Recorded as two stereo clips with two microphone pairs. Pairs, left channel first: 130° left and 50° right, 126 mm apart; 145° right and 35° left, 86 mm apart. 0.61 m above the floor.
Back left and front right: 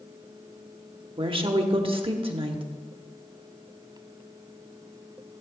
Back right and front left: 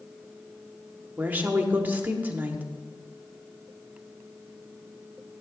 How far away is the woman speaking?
About 1.0 m.